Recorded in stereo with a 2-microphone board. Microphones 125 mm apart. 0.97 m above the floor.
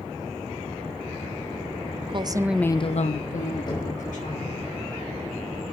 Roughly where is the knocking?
Left.